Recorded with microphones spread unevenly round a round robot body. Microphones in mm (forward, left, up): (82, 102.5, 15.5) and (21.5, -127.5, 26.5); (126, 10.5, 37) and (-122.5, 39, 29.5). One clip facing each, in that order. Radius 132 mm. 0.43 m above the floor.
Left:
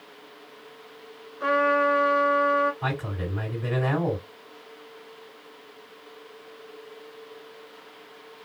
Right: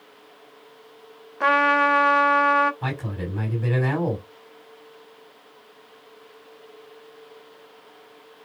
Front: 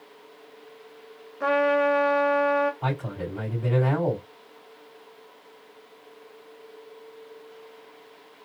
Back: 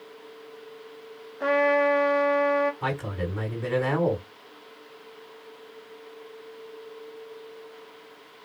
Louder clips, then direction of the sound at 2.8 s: Right 1 dB, back 1 dB; 140° right.